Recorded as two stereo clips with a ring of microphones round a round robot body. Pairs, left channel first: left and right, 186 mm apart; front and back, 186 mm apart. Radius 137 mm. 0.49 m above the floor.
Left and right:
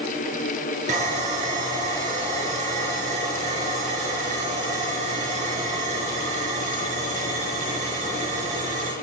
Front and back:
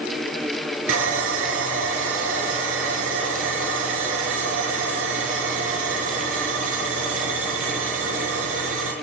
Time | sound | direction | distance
0.9 | sawing | 155° right | 5 m